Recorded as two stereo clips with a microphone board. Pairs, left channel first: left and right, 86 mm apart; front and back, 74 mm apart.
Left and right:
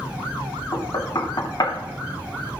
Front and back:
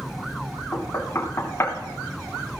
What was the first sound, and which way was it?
Knocking, 55° left.